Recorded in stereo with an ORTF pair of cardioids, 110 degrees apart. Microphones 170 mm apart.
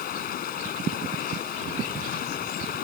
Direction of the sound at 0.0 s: 60° left.